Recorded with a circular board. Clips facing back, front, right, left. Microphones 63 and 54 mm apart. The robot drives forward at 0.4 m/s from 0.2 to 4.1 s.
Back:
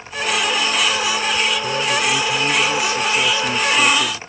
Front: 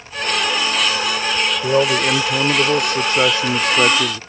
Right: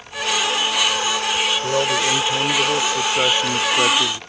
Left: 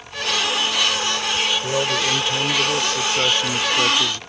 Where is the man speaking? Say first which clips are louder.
Front 4 dB, right 2 dB; 10° right; by 4.2 s 25° right.